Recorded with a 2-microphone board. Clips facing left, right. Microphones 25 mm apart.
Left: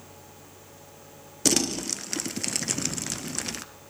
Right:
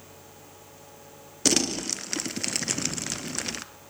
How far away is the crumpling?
About 0.7 m.